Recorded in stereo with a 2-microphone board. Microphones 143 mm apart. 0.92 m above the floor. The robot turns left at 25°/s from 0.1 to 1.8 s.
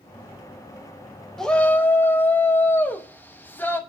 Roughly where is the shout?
Centre.